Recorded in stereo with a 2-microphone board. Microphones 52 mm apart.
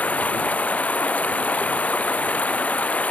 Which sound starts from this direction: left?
Running water, at 0.0 s.